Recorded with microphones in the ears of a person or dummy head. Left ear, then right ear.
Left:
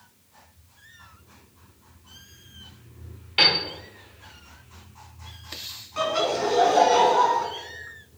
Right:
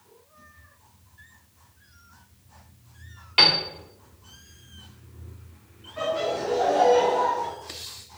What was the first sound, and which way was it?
A piano, 25° right (ahead or behind).